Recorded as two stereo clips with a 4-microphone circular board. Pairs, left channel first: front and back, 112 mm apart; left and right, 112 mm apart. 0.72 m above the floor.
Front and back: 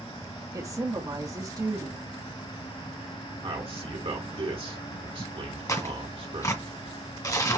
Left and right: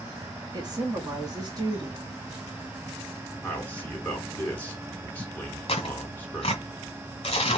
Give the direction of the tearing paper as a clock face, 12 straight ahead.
10 o'clock.